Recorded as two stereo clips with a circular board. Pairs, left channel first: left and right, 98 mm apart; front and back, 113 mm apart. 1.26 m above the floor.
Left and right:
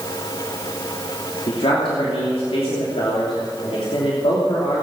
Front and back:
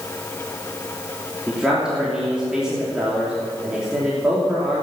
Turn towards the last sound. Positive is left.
turn(degrees=95)